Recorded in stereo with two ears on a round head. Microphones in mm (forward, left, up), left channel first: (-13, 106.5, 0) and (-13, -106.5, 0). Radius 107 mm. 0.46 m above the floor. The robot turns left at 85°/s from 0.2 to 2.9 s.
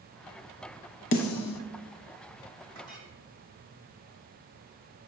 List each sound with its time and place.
1.1 s a snare drum: 60° left (ahead or behind), 0.8 m; by 1.6 s 75° left (ahead or behind), 0.8 m
2.8 s a clink: 75° right (ahead or behind), 2.5 m; by 3.1 s 60° right (ahead or behind), 2.5 m